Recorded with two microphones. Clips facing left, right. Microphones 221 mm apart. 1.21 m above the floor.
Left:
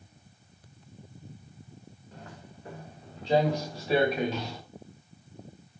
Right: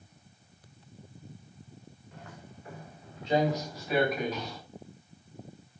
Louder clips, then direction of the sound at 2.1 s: Left 1 dB; 35° left (ahead or behind).